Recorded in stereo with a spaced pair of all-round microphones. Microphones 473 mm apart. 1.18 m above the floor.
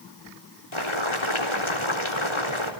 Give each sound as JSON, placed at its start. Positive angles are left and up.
{"t": 0.7, "sound": "boiling", "side_deg": 80, "distance_m": 4.0}